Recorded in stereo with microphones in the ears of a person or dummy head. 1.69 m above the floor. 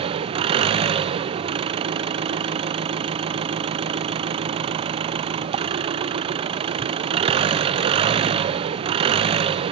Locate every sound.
0.0 s an engine running: 30° right (ahead or behind), 1.0 m